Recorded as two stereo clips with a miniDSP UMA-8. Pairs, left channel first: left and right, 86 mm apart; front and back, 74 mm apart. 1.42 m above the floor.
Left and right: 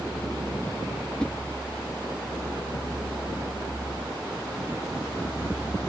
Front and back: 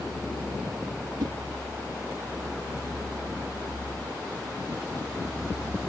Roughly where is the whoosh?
Behind.